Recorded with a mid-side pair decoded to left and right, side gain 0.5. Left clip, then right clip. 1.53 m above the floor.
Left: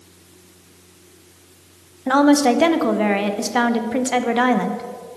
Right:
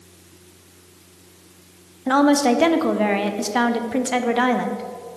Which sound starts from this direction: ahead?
A woman speaking, at 2.1 s.